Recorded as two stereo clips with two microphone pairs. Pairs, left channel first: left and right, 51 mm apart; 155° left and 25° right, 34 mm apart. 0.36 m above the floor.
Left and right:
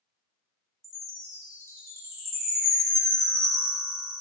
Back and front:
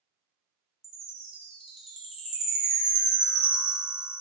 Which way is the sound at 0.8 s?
100° right.